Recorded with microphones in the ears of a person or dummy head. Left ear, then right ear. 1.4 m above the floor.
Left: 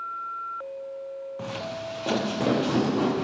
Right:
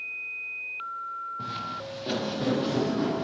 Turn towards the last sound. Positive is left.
turn(degrees=50)  # may be behind; listen again after turning